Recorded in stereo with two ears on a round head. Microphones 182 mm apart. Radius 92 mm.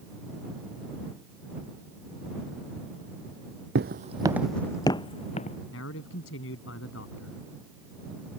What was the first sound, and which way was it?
Footsteps, 55° right (ahead or behind).